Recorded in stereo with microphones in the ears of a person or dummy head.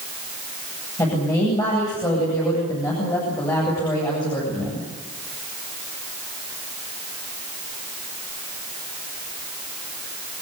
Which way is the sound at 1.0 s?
20° left (ahead or behind).